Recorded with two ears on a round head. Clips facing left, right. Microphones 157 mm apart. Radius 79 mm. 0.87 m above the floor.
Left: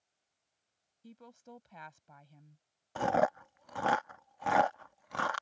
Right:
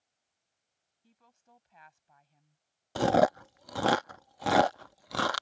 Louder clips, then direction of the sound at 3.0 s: Right 5 dB; 45° right (ahead or behind).